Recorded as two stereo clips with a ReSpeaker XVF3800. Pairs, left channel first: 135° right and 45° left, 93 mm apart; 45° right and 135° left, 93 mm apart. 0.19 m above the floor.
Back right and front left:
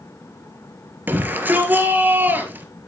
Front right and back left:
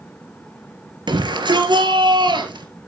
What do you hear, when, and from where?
1.1 s a shout: 110° left, 3 m